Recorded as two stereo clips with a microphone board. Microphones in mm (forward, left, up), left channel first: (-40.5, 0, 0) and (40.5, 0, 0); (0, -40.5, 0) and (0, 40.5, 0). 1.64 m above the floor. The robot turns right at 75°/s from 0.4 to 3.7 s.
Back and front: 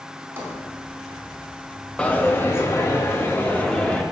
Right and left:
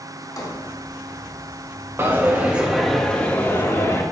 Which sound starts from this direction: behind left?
A dropped coin, at 2.0 s.